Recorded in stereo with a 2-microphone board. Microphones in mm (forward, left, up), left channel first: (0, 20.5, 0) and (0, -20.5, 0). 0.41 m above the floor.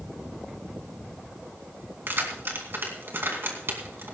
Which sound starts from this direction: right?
Keys jangling, at 2.1 s.